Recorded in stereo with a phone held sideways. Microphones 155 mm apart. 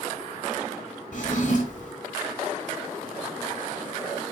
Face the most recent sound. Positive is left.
turn(degrees=60)  # may be behind; listen again after turning